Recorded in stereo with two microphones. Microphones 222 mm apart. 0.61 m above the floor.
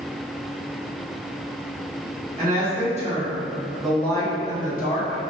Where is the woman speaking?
40° right (ahead or behind), 1.0 m; by 5.2 s 45° left (ahead or behind), 0.8 m.